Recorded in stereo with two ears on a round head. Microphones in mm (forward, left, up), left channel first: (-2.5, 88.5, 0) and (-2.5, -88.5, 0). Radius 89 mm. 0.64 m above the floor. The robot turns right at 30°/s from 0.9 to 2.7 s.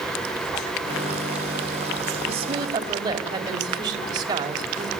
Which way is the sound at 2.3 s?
35° right (ahead or behind).